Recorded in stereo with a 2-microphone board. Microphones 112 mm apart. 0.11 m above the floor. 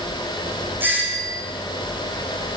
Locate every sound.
0.8 s a doorbell: 15° right (ahead or behind), 7 m